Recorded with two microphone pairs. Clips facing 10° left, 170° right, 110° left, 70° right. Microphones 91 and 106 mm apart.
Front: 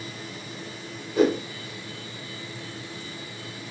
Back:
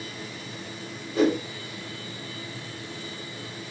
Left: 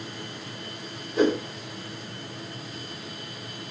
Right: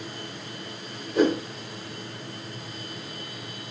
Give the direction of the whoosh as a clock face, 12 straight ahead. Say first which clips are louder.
Front 1 dB, right 1 dB; 2 o'clock.